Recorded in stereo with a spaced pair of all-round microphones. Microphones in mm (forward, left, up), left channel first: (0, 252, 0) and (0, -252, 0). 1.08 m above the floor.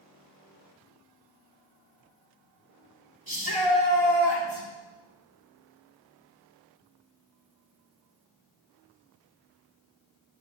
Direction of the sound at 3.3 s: 70° right (ahead or behind).